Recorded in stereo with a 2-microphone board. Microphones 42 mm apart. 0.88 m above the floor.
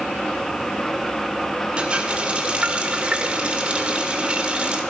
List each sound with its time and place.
1.8 s a running tap: 30° right (ahead or behind), 1.9 m